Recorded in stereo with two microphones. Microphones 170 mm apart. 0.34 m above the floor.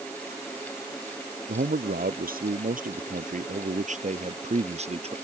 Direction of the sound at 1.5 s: 65° right (ahead or behind).